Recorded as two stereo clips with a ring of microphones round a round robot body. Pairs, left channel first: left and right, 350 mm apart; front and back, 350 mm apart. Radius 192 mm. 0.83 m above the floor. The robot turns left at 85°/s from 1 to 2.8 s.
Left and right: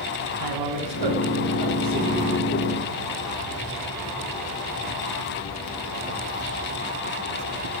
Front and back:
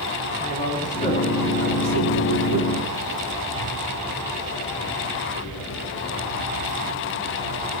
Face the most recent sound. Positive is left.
turn(degrees=135)